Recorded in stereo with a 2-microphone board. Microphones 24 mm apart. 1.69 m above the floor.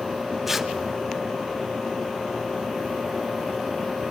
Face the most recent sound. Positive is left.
turn(degrees=-5)  # may be behind; listen again after turning